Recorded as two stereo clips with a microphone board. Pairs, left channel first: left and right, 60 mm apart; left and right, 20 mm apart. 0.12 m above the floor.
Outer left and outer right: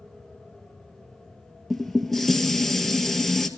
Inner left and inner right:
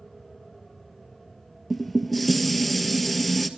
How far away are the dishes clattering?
About 1.4 m.